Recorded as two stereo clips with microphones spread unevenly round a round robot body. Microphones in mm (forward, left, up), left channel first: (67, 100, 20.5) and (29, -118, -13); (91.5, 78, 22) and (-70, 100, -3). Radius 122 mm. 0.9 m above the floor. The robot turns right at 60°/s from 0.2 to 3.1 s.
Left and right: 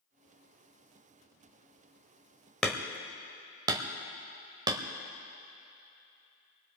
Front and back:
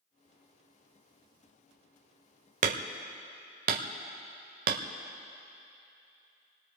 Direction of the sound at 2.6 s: 155° left.